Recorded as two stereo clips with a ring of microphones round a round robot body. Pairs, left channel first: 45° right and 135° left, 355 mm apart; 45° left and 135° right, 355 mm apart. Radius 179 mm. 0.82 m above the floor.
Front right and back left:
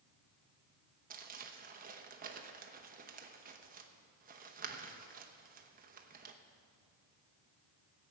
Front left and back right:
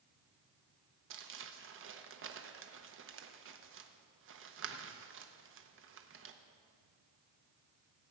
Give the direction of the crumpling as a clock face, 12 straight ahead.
6 o'clock.